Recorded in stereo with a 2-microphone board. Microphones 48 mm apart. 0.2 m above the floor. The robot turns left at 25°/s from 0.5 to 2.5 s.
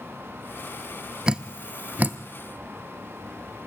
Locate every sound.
1.3 s dripping: 15° right (ahead or behind), 0.6 m; by 2.2 s 40° right (ahead or behind), 0.6 m